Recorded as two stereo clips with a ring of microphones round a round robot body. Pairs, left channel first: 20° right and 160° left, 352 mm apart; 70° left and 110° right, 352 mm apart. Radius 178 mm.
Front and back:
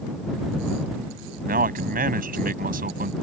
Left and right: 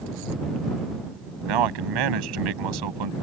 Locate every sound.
1.4 s a man speaking: 135° right